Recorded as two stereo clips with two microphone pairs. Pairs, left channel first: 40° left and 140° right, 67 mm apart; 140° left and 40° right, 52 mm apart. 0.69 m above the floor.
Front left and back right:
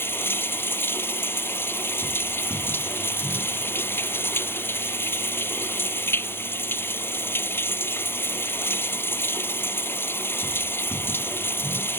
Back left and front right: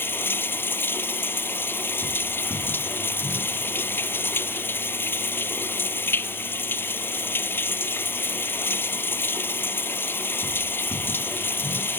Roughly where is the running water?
Left.